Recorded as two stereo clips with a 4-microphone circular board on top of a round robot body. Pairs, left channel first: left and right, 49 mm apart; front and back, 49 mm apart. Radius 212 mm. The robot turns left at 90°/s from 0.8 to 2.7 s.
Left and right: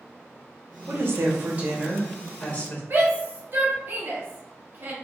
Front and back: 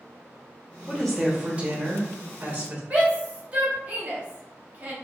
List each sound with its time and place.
0.9 s a woman speaking: 75° right, 1.3 m; by 2.8 s 120° left, 1.3 m
2.9 s a shout: 120° right, 1.8 m